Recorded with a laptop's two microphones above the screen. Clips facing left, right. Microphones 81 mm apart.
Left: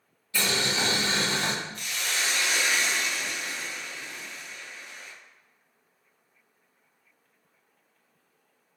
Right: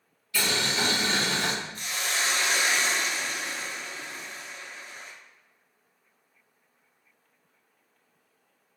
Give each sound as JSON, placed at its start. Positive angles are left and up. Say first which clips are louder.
{"t": 0.3, "sound": "boiling", "louder": "even", "side_deg": 25, "distance_m": 1.2}
{"t": 1.8, "sound": "a hiss", "louder": "right 1 dB", "side_deg": -35, "distance_m": 0.7}